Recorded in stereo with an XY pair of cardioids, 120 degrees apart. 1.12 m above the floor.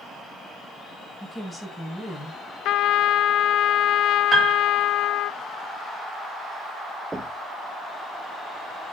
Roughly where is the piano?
Ahead.